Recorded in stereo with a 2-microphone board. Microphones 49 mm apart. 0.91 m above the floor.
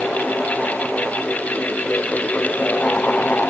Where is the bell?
No bell in this recording.